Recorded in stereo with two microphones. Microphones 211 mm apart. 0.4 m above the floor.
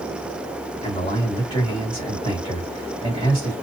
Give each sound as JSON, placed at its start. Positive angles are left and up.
{"t": 0.8, "sound": "a man speaking", "side_deg": 20, "distance_m": 1.8}